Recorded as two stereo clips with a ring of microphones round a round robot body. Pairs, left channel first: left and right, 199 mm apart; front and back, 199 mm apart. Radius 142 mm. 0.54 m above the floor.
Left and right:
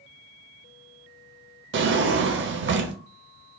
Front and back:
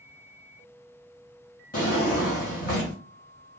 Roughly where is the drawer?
Ahead right.